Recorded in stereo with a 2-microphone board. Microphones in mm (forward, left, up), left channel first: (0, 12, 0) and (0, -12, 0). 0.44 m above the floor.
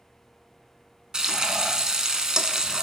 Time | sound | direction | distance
1.1 | frying | 25° right (ahead or behind) | 0.6 m